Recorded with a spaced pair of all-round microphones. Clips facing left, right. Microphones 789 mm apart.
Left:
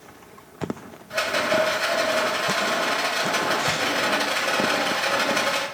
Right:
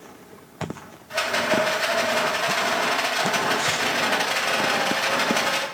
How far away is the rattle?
About 1.4 m.